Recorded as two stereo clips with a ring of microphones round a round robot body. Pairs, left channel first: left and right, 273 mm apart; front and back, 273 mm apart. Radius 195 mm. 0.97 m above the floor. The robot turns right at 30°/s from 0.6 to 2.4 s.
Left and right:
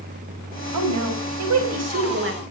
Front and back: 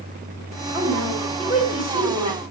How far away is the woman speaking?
About 4 m.